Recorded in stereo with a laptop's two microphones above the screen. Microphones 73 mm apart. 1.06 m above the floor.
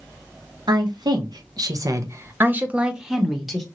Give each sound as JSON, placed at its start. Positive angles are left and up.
{"t": 0.7, "sound": "a woman speaking", "side_deg": -75, "distance_m": 1.0}